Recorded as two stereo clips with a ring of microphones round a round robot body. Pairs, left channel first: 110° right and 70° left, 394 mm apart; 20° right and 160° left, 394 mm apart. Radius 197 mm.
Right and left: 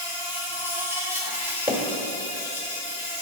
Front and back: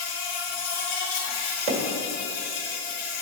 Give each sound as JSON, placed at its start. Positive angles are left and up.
{"t": 0.0, "sound": "an insect", "azimuth_deg": -15, "distance_m": 1.8}
{"t": 1.7, "sound": "hammering", "azimuth_deg": 145, "distance_m": 1.3}